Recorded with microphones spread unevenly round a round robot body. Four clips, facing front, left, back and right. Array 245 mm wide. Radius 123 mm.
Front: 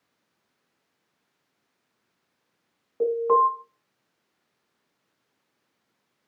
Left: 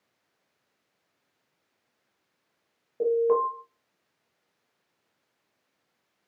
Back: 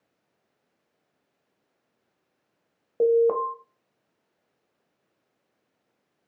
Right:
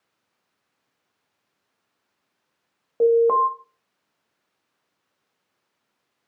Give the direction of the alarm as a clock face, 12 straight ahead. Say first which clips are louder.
Right 6 dB, even; 5 o'clock.